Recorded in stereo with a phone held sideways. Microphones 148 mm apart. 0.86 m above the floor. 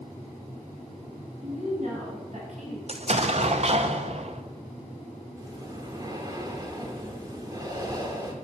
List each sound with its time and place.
1.4 s a woman speaking: 55° right (ahead or behind), 5 m
2.9 s an explosion: 50° right (ahead or behind), 0.7 m
5.4 s breathing: 30° right (ahead or behind), 1.4 m